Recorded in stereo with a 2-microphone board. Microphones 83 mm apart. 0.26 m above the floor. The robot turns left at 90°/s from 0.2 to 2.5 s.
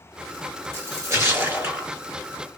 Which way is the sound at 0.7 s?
60° right.